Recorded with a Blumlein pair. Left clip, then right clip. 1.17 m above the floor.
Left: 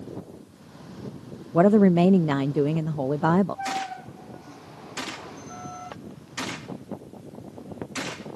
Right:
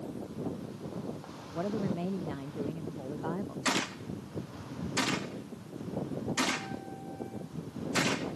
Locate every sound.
1.5 s a woman speaking: 55° left
3.6 s a gunshot: 10° right